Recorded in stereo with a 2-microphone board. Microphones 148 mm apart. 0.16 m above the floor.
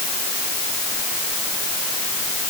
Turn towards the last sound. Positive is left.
No sound to turn to.